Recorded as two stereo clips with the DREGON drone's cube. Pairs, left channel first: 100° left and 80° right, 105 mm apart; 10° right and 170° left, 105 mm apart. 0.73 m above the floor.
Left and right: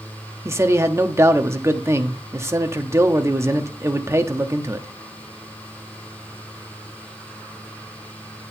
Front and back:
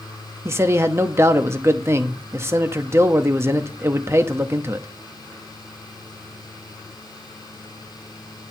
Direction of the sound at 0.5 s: 130° right.